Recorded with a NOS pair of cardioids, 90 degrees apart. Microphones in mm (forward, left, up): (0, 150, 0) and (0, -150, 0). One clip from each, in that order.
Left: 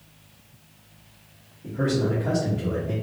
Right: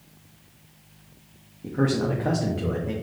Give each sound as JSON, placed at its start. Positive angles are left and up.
{"t": 1.6, "sound": "a man speaking", "azimuth_deg": -50, "distance_m": 0.8}